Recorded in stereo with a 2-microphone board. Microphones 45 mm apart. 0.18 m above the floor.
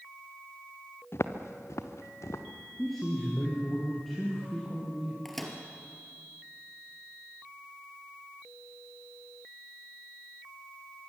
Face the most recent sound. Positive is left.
turn(degrees=5)  # may be behind; listen again after turning